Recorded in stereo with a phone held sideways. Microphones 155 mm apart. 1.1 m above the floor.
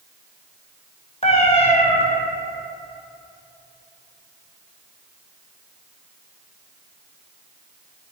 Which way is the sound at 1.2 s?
40° left (ahead or behind).